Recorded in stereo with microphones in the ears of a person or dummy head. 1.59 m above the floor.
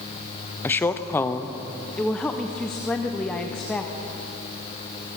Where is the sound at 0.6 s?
15° left (ahead or behind), 0.6 m.